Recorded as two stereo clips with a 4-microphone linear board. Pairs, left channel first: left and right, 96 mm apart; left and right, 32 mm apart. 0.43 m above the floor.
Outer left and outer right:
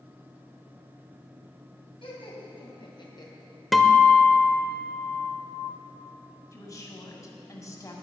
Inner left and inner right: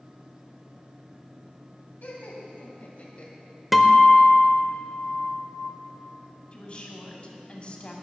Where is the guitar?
Centre (ahead or behind), 0.7 m.